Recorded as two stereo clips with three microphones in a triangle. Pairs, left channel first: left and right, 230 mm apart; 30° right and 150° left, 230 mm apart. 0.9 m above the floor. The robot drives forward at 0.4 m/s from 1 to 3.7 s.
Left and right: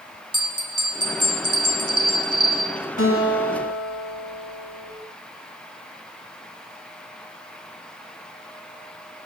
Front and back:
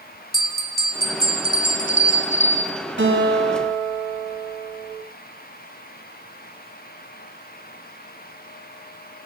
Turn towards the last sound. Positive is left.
turn(degrees=110)